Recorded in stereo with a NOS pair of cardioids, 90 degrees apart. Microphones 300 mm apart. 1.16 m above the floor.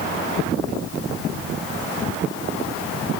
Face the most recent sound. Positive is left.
No sound to turn to.